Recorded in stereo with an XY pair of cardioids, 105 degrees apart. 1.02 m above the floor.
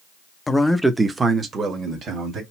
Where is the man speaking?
25° left, 0.7 m; by 2.4 s 55° right, 1.9 m.